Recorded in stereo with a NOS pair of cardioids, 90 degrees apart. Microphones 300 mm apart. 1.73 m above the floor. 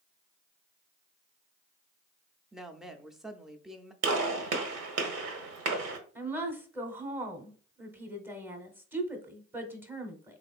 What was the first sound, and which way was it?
A woman speaking, straight ahead.